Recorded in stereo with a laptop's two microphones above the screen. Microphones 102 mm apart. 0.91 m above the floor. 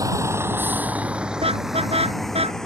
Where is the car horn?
80° right.